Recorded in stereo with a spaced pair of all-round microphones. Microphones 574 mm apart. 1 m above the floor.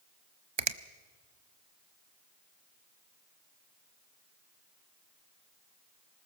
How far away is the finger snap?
About 0.8 m.